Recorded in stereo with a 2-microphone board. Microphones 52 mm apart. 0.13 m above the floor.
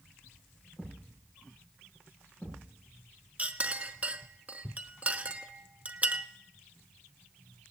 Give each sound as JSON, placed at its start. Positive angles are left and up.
{"t": 0.8, "sound": "a thud", "side_deg": 35, "distance_m": 9.5}
{"t": 3.4, "sound": "a clink", "side_deg": -30, "distance_m": 1.0}